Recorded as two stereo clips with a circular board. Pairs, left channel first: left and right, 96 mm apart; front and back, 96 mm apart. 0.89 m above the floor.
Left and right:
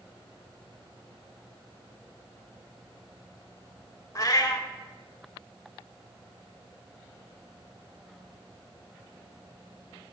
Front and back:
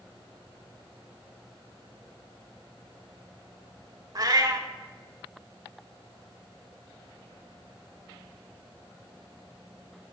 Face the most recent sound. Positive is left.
turn(degrees=140)